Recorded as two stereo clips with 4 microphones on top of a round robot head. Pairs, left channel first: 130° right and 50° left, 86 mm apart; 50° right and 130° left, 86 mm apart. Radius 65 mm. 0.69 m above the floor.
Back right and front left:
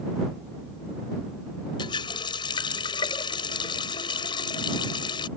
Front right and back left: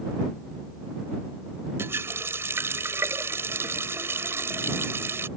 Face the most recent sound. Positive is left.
turn(degrees=-165)